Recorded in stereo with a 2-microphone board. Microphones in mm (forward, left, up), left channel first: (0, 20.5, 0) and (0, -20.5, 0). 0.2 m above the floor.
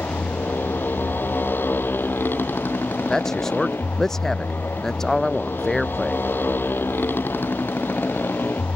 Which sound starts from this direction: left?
A motorcycle, at 0.0 s.